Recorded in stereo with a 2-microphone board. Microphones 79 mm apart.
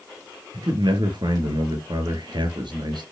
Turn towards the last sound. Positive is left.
turn(degrees=-70)  # may be behind; listen again after turning